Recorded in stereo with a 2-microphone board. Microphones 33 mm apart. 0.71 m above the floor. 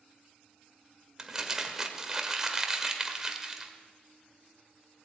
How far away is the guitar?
No guitar in this recording.